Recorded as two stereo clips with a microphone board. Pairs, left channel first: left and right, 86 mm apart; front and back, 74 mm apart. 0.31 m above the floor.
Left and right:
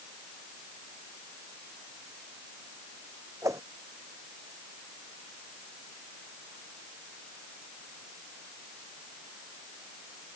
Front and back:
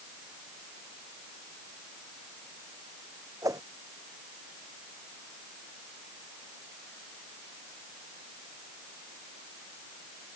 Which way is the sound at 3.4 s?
140° right.